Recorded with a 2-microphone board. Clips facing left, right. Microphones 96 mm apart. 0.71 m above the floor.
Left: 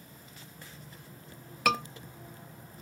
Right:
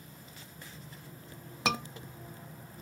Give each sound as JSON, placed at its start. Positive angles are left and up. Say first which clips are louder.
{"t": 1.6, "sound": "a scream", "louder": "left 4 dB", "side_deg": -20, "distance_m": 1.1}